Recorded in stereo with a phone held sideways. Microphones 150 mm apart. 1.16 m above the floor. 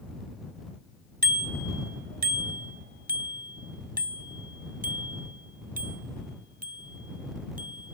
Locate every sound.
1.2 s a bicycle bell: 90° right; by 8.0 s 65° right (ahead or behind)